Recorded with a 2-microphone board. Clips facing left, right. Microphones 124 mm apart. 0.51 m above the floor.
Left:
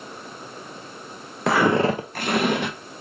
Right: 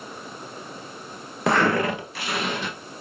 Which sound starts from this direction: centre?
Footsteps, at 1.5 s.